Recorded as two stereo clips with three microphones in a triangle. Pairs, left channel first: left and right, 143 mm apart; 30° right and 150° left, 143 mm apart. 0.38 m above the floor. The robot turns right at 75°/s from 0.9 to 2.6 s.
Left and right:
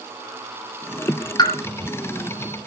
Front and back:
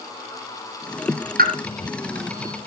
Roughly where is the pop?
Behind left.